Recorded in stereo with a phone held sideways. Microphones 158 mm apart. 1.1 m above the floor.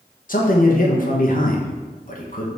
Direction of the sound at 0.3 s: 60° left (ahead or behind).